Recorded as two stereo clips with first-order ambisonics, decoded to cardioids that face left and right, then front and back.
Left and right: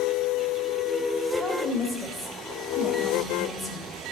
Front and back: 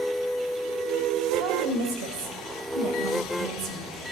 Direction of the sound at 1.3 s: 170° right.